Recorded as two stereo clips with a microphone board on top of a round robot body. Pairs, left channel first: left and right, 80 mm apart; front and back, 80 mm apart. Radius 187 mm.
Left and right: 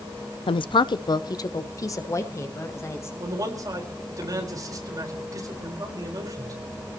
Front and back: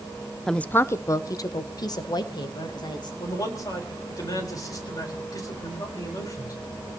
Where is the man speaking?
45° right, 4.5 m.